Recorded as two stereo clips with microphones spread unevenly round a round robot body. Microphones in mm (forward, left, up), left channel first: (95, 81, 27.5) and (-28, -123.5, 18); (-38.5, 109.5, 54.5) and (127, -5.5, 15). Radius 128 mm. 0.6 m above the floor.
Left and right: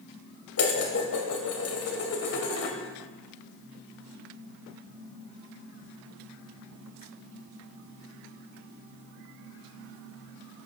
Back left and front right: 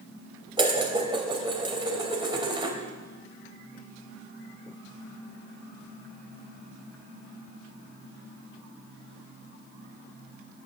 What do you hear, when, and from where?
0.6 s dishes clattering: 30° left, 2.5 m